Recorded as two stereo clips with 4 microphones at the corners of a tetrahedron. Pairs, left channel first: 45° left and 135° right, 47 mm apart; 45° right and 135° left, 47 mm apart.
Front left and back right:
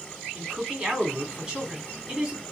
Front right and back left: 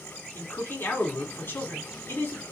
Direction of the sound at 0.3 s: 60° right.